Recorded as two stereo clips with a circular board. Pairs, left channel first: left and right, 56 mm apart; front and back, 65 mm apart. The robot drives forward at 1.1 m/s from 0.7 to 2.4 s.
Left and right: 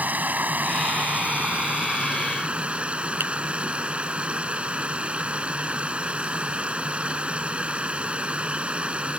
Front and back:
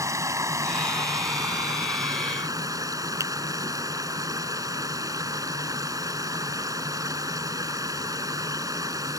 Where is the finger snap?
140° right.